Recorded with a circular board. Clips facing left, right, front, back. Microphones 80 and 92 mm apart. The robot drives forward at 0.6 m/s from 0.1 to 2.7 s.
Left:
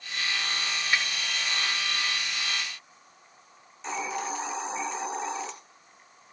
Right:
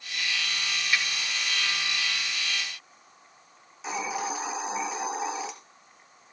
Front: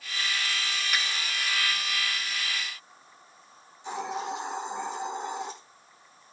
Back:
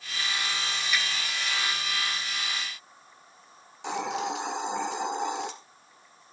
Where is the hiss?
175° right, 2 m.